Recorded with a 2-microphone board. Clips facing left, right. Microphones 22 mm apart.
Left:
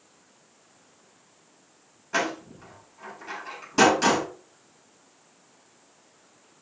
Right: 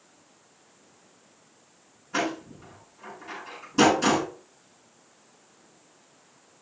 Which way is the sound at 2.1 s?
45° left (ahead or behind).